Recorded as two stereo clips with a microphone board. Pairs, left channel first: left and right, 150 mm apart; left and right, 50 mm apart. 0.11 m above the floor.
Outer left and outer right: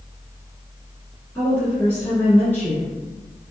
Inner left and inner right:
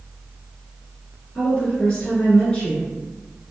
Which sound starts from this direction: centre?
A woman speaking, at 1.4 s.